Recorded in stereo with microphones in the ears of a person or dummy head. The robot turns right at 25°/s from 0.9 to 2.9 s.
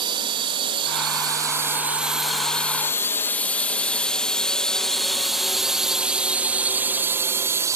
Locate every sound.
0.0 s a drone: 25° right (ahead or behind); by 7.8 s 15° right (ahead or behind)